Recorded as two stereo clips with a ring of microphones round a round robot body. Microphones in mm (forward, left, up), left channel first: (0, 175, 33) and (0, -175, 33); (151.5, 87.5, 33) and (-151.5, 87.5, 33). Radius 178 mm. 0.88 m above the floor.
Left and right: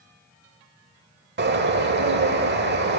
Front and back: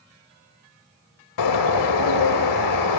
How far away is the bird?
About 1.1 m.